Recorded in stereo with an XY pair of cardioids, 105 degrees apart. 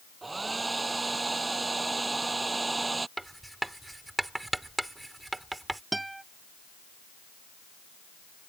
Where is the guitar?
15° right.